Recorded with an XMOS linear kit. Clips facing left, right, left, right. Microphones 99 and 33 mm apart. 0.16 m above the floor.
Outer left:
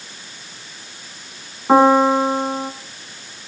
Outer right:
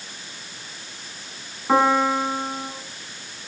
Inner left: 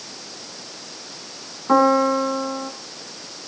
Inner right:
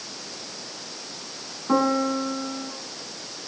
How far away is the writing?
No writing in this recording.